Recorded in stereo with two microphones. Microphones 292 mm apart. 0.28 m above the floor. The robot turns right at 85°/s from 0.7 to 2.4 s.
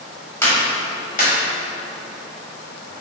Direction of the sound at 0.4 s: 10° left (ahead or behind).